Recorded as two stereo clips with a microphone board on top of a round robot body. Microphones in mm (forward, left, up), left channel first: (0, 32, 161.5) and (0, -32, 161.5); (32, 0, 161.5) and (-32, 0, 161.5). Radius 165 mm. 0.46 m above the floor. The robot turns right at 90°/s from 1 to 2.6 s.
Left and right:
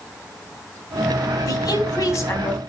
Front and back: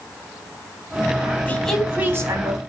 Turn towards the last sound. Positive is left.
turn(degrees=170)